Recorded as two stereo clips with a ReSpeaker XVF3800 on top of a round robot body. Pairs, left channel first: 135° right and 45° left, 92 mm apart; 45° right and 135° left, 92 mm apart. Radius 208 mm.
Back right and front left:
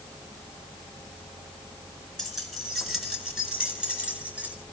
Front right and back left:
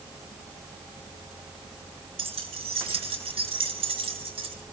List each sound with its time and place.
2.2 s keys jangling: 135° left, 4 m; by 4.5 s 120° left, 4.5 m